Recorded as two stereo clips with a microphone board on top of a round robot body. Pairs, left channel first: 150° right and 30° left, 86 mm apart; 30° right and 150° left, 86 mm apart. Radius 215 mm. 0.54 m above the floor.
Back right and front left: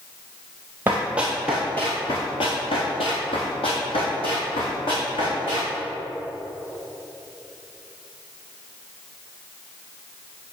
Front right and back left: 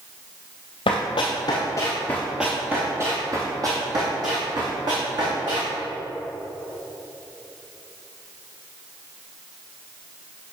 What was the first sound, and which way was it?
Running footsteps, 40° right.